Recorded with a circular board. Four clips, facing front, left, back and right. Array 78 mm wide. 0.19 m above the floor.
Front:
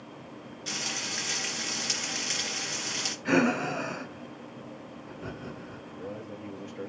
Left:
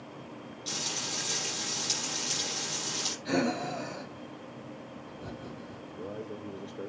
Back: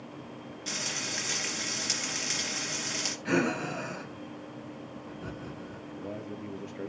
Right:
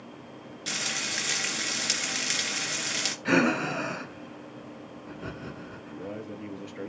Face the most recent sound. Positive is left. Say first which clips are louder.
# right 1 dB, back 1 dB
turn(degrees=-95)